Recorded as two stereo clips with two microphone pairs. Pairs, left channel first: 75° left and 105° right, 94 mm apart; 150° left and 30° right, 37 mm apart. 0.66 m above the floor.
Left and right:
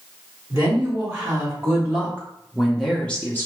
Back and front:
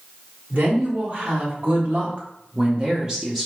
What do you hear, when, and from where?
0.5 s a woman speaking: 55° right, 1.8 m; by 3.5 s 50° left, 0.8 m